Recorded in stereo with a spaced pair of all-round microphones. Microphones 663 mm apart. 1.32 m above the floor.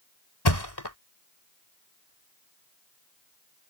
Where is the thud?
35° left (ahead or behind).